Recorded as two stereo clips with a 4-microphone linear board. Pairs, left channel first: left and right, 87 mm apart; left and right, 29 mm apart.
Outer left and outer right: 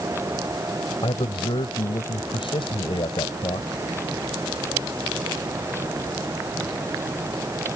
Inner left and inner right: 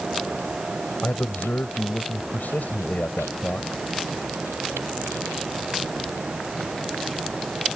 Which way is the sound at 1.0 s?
70° left (ahead or behind).